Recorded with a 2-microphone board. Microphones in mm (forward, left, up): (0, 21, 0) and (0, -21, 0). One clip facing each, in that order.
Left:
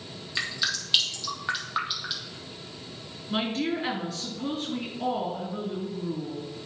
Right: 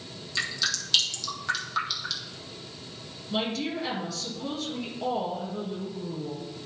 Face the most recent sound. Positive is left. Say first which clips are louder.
# left 2 dB
turn(degrees=45)  # may be behind; listen again after turning